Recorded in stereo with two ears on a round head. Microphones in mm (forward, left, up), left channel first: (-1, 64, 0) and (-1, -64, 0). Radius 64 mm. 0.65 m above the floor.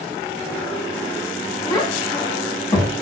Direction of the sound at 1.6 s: 20° left (ahead or behind).